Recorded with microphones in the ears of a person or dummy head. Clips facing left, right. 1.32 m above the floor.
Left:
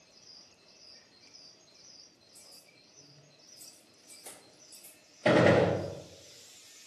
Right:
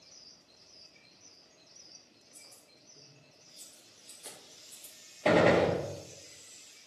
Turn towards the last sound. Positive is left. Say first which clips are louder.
# left 1 dB
turn(degrees=10)  # may be behind; listen again after turning